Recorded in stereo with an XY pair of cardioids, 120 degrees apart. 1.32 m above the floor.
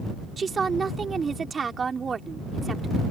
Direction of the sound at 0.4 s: 30° right.